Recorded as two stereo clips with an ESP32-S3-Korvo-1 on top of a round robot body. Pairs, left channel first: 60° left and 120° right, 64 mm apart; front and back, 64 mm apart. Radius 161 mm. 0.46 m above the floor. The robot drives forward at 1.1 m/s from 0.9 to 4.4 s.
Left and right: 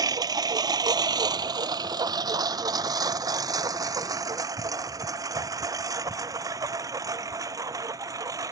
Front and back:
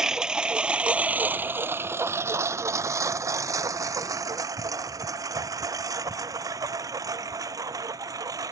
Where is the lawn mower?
100° right; by 8.5 s 150° right.